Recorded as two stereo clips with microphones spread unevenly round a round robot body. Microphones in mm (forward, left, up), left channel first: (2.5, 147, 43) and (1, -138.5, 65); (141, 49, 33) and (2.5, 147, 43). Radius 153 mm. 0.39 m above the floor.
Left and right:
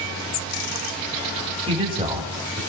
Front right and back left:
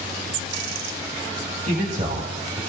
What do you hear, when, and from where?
1.7 s a man speaking: 155° right, 2.5 m